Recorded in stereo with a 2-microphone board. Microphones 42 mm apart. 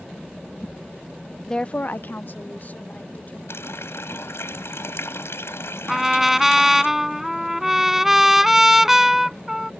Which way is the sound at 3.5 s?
85° left.